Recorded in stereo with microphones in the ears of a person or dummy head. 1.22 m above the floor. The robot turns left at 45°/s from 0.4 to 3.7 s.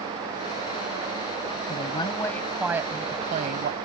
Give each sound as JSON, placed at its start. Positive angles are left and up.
{"t": 1.7, "sound": "a woman speaking", "azimuth_deg": 40}